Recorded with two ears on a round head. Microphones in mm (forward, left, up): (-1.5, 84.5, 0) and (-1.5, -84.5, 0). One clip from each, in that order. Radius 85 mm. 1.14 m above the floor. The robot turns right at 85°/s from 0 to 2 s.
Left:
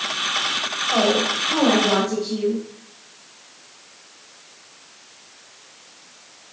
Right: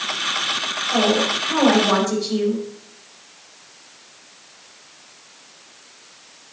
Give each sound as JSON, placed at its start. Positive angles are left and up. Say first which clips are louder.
{"t": 0.9, "sound": "a woman speaking", "louder": "right 1 dB", "azimuth_deg": 145, "distance_m": 4.0}